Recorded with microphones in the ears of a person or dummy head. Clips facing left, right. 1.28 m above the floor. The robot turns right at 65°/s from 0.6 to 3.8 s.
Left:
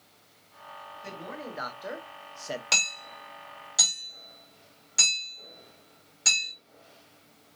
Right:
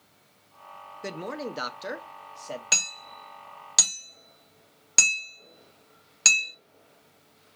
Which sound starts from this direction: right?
A man speaking, at 1.0 s.